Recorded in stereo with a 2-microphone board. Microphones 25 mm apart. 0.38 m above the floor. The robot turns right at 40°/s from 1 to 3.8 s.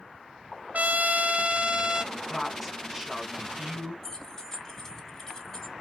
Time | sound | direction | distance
0.7 | a trumpet | 70° right | 0.7 m
2.1 | a woman speaking | 155° left | 3 m
4.0 | keys jangling | 15° left (ahead or behind) | 1.9 m